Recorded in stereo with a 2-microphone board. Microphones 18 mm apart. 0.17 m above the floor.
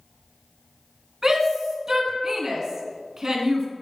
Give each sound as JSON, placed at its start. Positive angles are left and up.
{"t": 1.2, "sound": "a shout", "side_deg": -30, "distance_m": 1.8}